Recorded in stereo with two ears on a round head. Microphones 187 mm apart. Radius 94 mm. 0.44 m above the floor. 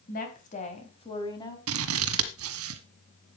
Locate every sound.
0.1 s a woman speaking: 45° left (ahead or behind), 3.5 m; by 1.6 s 15° left (ahead or behind), 3.5 m
1.7 s scissors: 80° right, 1.5 m